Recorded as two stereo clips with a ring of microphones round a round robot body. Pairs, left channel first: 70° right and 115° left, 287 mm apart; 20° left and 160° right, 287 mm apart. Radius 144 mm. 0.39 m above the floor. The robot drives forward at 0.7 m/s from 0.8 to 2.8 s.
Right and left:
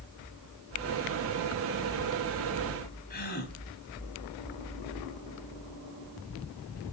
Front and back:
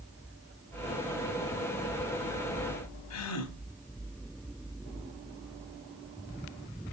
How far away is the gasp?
About 2.5 m.